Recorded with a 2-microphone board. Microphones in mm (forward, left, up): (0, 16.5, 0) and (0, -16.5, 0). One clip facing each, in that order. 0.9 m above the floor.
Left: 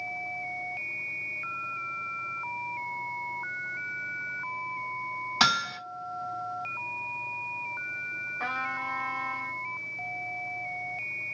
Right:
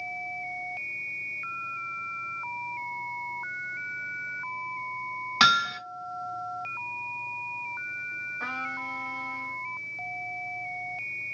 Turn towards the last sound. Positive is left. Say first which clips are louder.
# left 3 dB
turn(degrees=25)  # may be behind; listen again after turning